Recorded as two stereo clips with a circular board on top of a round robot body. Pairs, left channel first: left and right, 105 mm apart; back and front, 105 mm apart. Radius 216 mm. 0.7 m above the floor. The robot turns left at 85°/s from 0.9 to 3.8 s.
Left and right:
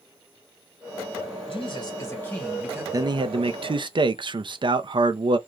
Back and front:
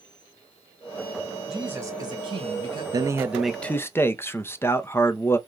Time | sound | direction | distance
1.5 | a man speaking | 85° left | 1.8 m
2.9 | a man speaking | 40° right | 0.7 m